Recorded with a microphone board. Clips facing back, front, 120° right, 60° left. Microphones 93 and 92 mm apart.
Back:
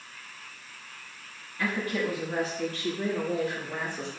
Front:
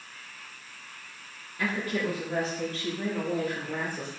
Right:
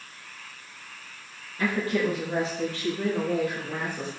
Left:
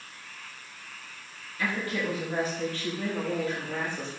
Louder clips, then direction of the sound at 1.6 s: Even, right 5 dB; 70° right.